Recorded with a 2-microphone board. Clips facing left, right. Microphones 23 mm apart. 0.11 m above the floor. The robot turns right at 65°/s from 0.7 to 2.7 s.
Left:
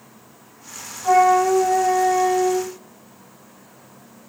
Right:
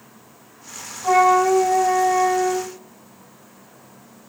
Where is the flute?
45° right, 1.8 m; by 2.7 s 65° left, 1.8 m.